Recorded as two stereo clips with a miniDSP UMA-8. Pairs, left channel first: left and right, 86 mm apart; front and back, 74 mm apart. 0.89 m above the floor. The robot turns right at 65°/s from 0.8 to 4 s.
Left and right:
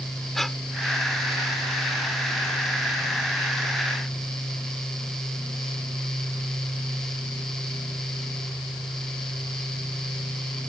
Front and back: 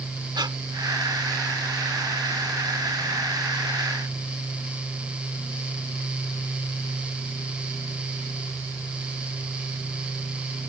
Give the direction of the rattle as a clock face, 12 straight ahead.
No rattle in this recording.